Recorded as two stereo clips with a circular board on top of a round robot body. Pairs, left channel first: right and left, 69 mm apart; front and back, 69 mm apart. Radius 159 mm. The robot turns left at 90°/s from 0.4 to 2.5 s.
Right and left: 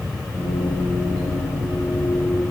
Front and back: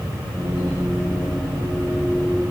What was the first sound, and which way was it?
Only background noise.